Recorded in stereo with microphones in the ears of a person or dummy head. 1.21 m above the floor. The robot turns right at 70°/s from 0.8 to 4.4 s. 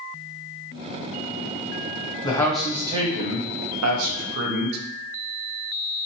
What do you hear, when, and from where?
2.2 s a man speaking: 155° left, 0.7 m; by 4.8 s 55° right, 0.7 m